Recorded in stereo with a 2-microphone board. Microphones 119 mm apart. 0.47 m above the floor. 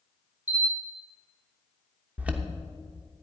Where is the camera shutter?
15° right (ahead or behind), 4.5 m.